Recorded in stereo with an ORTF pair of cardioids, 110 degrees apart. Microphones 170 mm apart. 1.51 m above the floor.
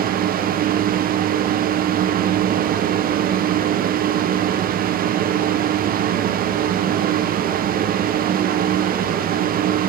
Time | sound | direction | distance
0.0 | a fan | 55° right | 1.1 m